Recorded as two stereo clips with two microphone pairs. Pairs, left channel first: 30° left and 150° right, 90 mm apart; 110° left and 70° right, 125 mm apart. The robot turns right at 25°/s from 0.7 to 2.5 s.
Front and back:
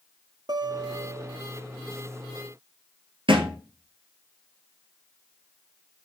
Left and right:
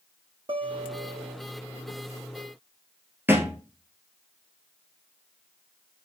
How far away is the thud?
About 1.6 m.